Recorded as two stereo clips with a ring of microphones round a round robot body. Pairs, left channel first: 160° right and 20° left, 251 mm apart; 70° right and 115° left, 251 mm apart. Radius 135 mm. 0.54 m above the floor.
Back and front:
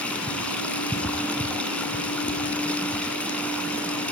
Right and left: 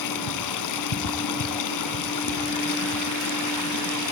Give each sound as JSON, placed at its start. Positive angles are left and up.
{"t": 0.0, "sound": "running water", "azimuth_deg": -70, "distance_m": 2.0}